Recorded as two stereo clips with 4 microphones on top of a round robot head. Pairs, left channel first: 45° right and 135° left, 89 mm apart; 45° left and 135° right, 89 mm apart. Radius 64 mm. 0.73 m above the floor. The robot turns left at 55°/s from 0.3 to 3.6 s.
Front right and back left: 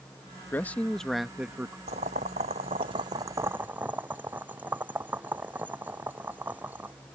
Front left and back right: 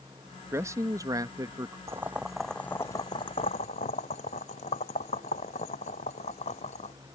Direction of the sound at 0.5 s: 95° right.